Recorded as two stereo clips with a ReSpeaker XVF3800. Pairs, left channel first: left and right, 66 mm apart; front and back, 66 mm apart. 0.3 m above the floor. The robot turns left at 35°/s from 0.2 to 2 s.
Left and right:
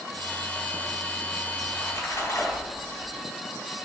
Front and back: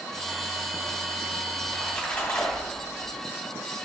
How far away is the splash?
About 2 m.